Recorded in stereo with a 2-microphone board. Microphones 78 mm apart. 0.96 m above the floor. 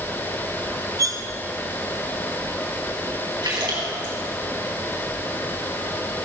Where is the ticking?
I don't hear ticking.